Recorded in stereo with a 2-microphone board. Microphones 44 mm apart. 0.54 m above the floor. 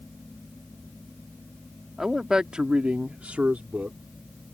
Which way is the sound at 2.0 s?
5° right (ahead or behind).